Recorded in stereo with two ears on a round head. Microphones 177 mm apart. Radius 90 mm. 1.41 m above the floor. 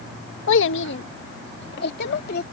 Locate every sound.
0.5 s a child speaking: 70° left (ahead or behind); by 2.4 s 55° left (ahead or behind)